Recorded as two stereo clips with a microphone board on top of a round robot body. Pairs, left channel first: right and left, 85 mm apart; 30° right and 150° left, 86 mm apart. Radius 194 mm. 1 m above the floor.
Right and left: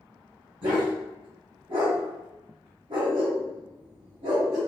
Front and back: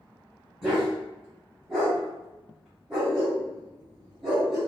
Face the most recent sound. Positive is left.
turn(degrees=65)